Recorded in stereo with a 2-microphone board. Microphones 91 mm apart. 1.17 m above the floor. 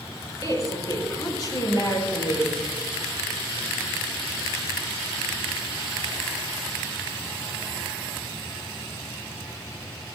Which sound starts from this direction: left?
A woman speaking, at 0.4 s.